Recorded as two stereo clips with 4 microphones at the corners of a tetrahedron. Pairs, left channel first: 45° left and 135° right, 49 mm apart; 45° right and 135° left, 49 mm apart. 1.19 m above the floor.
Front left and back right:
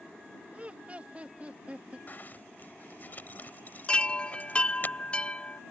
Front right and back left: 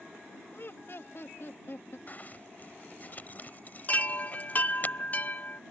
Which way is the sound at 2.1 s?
Straight ahead.